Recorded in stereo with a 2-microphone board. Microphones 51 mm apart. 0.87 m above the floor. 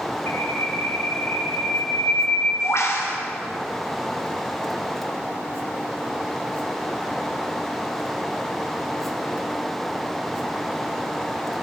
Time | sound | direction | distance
0.3 | a bird | 65° left (ahead or behind) | 3 m